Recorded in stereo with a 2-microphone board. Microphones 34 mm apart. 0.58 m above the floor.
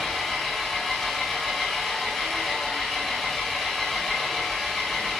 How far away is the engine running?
About 4 m.